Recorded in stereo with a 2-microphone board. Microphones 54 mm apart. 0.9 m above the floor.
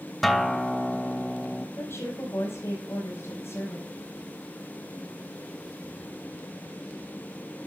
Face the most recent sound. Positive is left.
turn(degrees=55)  # may be behind; listen again after turning